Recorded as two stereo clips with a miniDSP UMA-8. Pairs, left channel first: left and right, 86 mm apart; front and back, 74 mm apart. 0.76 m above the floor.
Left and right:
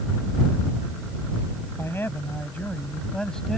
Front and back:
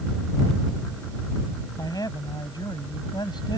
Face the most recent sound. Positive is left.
turn(degrees=5)